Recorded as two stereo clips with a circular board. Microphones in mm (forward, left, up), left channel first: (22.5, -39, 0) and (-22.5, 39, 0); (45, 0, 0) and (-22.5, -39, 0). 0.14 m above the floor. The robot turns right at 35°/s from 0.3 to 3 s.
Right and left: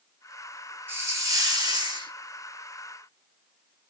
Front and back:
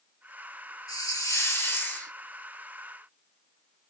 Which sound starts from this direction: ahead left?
A hiss, at 0.9 s.